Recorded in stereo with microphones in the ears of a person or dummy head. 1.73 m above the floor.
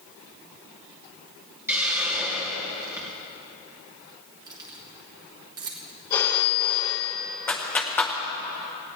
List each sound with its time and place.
1.7 s a hiss: 10° right (ahead or behind), 2.5 m
4.5 s keys jangling: 20° right (ahead or behind), 1.2 m
6.1 s a phone ringing: 30° left (ahead or behind), 1.4 m
7.5 s a clap: 10° left (ahead or behind), 0.8 m